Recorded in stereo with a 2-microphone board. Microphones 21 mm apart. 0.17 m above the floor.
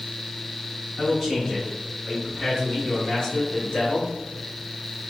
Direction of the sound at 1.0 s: 10° left (ahead or behind).